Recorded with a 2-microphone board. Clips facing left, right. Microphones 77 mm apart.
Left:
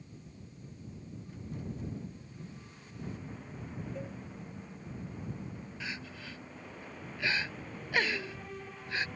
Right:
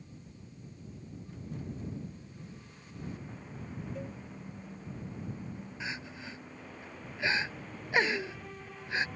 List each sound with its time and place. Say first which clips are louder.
4.0 s a cowbell: even; 5° right (ahead or behind)
5.8 s crying: right 2 dB; 20° right (ahead or behind)